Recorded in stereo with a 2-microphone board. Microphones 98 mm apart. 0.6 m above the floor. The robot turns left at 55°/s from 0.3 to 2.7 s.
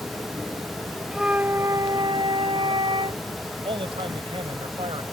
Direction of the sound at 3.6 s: 65° right (ahead or behind).